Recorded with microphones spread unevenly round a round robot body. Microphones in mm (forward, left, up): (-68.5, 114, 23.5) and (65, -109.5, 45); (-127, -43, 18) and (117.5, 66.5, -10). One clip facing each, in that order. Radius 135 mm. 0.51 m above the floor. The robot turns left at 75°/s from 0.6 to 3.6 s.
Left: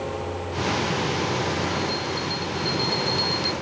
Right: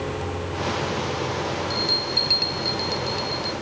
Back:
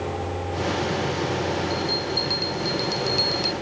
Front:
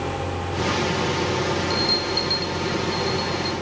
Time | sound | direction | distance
1.7 | a bell | 35° right | ?